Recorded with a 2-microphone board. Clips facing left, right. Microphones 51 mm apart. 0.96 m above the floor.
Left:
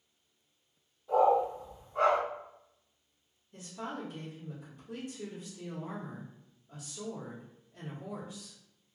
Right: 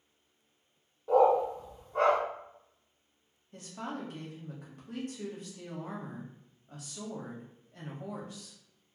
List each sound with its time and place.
1.1 s a dog barking: 55° right (ahead or behind), 0.8 m
3.5 s a woman speaking: 60° right (ahead or behind), 1.2 m